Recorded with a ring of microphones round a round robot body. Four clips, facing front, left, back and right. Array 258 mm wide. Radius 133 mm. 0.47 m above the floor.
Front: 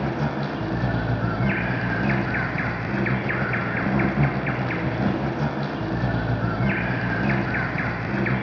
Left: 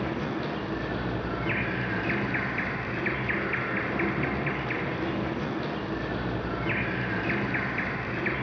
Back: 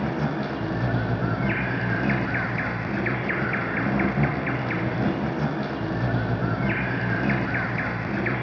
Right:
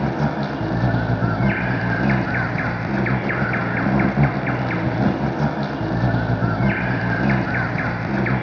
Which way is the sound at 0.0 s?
90° right.